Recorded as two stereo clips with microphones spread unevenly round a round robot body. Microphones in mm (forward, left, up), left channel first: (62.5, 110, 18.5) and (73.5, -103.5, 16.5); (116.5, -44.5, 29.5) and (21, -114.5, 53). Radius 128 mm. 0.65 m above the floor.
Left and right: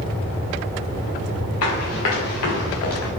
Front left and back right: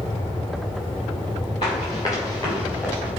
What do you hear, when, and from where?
1.6 s running footsteps: 105° left, 5 m; by 3.1 s 125° left, 3.5 m